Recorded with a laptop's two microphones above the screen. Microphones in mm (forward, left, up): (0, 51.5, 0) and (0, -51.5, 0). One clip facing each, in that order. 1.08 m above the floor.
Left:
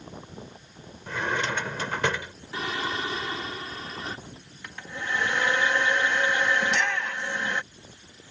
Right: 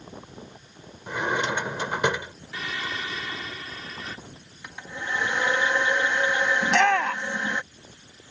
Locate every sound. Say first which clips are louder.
1.1 s a drawer: right 2 dB; 15° right (ahead or behind)
2.5 s singing: left 3 dB; 35° left (ahead or behind)
4.6 s a hair dryer: even; 15° right (ahead or behind)
6.6 s a shout: right 6 dB; 65° right (ahead or behind)